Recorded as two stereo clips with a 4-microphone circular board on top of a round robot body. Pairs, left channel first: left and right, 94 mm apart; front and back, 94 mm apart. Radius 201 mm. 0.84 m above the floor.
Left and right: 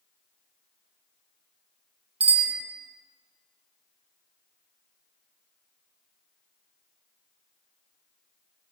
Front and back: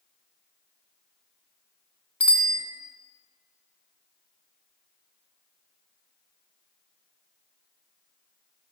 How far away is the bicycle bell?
About 2.5 m.